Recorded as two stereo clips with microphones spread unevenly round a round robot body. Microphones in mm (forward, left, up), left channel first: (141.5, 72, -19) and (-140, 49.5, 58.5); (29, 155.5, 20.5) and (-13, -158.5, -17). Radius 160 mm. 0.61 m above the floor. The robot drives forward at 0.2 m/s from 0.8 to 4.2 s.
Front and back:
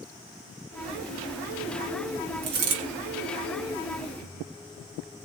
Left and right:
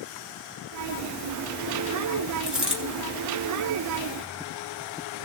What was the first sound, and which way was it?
A dropped coin, 175° left.